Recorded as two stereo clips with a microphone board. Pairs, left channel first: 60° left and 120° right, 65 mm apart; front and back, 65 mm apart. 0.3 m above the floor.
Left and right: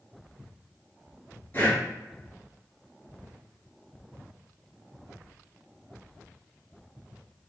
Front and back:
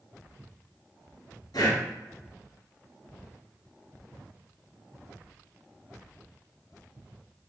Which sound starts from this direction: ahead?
Breathing, at 1.5 s.